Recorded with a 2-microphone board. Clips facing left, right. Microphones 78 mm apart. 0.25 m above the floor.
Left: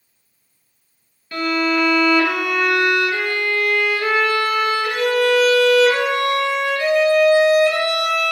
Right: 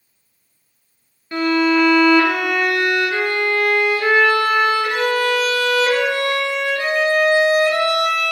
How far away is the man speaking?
No man speaking in this recording.